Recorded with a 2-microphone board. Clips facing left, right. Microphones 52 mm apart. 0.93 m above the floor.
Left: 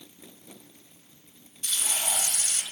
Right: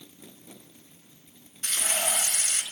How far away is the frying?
About 4.5 m.